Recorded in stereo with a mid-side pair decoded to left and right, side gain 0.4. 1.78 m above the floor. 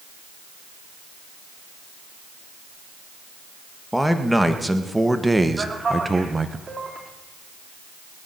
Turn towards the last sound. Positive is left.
turn(degrees=-35)